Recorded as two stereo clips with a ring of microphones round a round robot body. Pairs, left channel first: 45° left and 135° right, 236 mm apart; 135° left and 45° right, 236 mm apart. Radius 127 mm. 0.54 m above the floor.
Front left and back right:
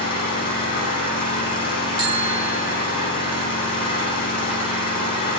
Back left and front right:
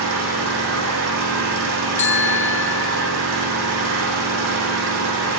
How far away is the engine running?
About 9.5 m.